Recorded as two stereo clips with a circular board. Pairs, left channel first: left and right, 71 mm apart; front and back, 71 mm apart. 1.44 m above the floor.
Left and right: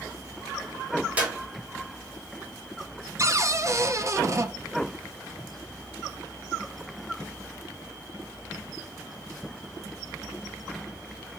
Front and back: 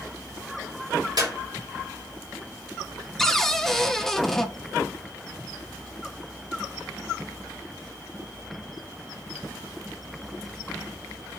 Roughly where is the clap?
Behind.